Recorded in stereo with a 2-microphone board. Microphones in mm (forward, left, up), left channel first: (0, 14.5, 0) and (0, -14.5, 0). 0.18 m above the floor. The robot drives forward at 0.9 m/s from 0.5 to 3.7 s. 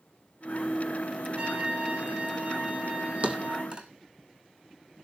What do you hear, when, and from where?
1.4 s a trumpet: 45° right (ahead or behind), 8.5 m; by 3.8 s 55° right (ahead or behind), 7 m
3.2 s a thud: 45° right (ahead or behind), 1.3 m; by 3.9 s 35° right (ahead or behind), 1.7 m